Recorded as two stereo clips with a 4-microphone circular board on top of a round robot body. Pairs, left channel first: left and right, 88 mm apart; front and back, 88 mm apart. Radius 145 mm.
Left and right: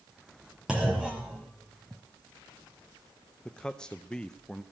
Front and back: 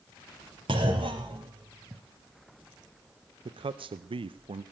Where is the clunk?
170° right, 0.9 m.